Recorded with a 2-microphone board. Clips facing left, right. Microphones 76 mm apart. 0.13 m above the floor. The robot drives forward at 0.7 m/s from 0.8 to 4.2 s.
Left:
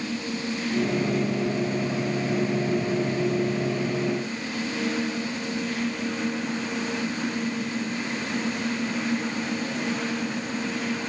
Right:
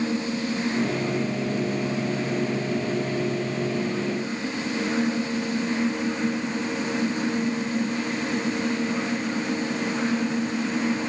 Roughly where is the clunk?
No clunk in this recording.